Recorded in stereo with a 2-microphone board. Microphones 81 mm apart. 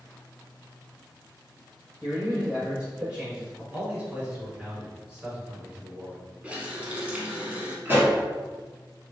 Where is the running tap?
20° right (ahead or behind), 0.9 m.